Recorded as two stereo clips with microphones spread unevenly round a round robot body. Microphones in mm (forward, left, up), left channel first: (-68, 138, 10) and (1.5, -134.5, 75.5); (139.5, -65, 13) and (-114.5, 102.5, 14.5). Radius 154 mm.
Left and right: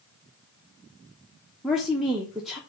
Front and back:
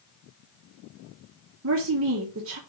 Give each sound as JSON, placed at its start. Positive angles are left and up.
{"t": 1.6, "sound": "a woman speaking", "azimuth_deg": -175, "distance_m": 1.0}